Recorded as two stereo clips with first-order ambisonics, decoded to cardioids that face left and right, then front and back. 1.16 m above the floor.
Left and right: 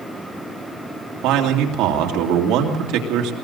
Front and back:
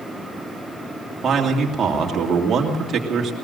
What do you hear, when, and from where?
1.2 s a man speaking: 115° right, 2.5 m